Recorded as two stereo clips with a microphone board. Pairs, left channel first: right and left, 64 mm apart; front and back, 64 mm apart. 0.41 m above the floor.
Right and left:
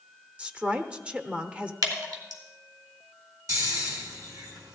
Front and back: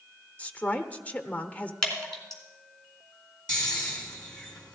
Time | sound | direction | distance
0.4 | a woman speaking | 40° left | 0.9 m
1.8 | dripping | 80° left | 3.5 m
3.5 | snoring | 75° left | 3 m